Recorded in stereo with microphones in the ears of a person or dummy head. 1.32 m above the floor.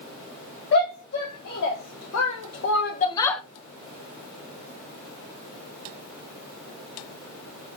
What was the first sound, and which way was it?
A shout, 65° left (ahead or behind).